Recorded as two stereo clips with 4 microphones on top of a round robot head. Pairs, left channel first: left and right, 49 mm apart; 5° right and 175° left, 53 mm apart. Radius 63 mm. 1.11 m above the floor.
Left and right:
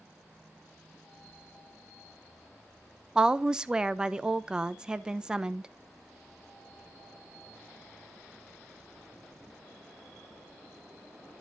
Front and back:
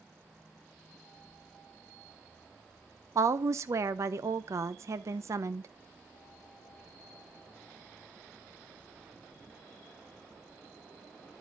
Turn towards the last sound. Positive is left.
turn(degrees=-165)